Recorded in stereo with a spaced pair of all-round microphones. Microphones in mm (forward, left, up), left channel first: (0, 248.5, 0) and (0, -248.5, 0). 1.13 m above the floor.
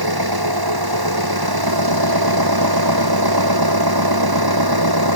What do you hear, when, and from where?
0.0 s an engine running: 45° right (ahead or behind)